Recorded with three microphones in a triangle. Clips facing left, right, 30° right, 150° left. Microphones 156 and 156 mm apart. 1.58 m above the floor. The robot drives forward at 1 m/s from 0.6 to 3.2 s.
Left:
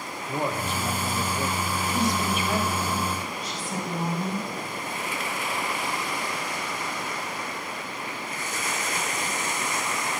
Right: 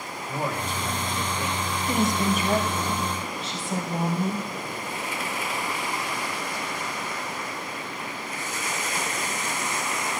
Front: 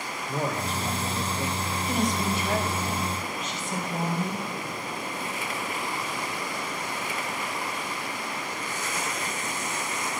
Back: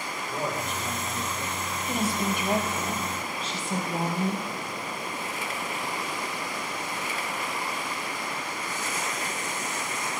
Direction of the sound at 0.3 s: 20° left.